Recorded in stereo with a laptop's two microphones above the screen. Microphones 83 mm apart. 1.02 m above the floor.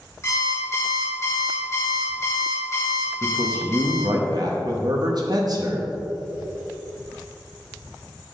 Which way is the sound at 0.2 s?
35° left (ahead or behind).